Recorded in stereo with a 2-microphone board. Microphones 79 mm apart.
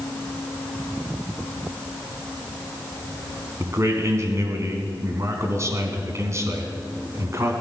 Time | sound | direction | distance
3.6 | a man speaking | 35° right (ahead or behind) | 2.5 m